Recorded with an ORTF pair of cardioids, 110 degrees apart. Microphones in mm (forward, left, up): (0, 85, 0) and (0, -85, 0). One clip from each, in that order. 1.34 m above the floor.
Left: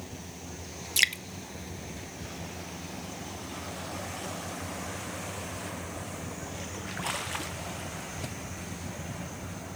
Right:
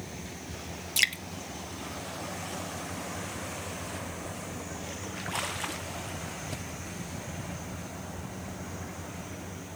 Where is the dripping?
10° left, 0.8 m.